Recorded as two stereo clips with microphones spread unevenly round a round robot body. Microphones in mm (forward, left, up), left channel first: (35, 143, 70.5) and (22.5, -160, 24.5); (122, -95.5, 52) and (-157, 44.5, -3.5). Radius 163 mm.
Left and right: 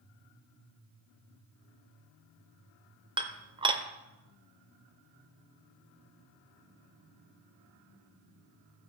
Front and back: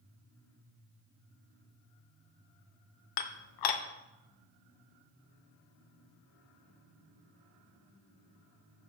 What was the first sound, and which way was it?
Dishes clattering, 25° right.